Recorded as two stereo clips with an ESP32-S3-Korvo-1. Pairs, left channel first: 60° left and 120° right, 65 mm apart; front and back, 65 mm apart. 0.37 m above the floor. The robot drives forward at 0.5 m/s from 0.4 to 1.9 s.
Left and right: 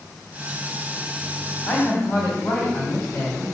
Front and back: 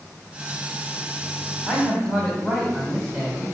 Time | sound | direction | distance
1.6 | a man speaking | 110° left | 2.5 m